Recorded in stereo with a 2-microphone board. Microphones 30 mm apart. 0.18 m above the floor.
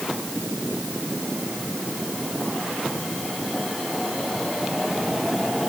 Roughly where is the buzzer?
I don't hear a buzzer.